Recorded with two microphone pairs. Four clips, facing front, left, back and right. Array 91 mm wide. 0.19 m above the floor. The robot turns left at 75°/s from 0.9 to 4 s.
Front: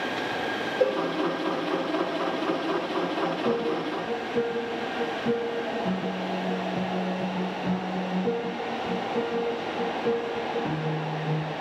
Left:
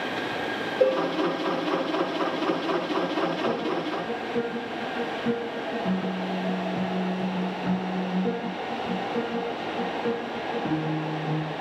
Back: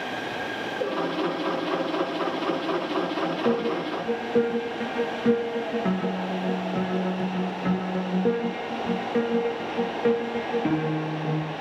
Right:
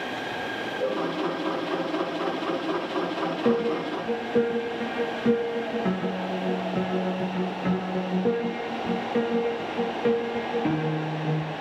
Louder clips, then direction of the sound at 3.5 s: Right 3 dB, back 2 dB; 110° right.